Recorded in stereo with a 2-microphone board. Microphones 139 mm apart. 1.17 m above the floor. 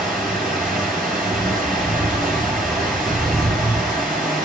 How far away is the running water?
About 5.5 m.